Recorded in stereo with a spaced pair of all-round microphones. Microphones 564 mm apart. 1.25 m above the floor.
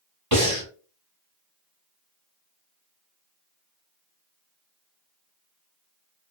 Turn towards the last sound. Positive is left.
turn(degrees=-30)  # may be behind; listen again after turning